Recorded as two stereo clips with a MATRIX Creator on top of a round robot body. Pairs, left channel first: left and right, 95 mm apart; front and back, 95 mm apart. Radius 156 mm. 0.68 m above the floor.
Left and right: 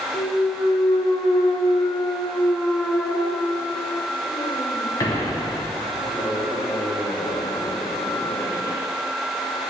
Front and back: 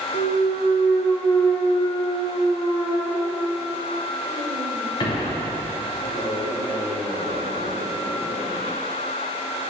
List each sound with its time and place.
0.1 s a clunk: 40° left, 0.6 m